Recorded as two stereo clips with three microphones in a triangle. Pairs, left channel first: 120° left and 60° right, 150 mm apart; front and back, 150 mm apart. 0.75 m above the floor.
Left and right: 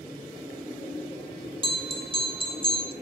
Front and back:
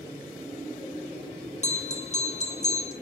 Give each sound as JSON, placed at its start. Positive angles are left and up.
{"t": 1.6, "sound": "a bell", "azimuth_deg": -20, "distance_m": 1.5}